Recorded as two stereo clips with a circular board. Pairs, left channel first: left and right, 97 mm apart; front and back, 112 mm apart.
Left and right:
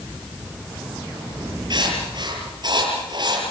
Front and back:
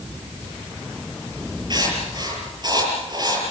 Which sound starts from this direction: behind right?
Writing, at 1.7 s.